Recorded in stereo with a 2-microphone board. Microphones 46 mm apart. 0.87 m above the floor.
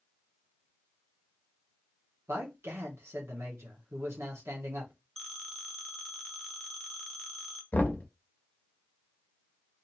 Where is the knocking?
40° left (ahead or behind), 0.8 m.